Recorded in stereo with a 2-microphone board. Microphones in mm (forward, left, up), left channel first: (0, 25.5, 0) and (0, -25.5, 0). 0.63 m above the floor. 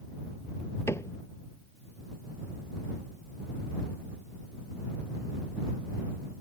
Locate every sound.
0.9 s a cupboard door: 65° left (ahead or behind)